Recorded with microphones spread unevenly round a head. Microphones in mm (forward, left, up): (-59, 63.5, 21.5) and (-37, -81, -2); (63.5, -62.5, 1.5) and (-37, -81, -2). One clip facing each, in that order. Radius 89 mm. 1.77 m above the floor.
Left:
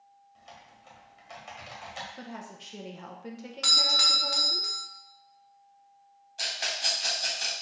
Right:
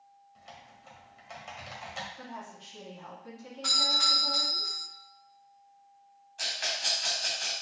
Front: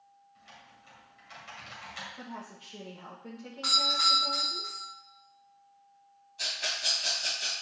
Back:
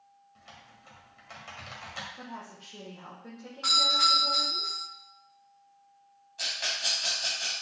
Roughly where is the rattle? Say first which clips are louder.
Left 1 dB, back 1 dB; behind left.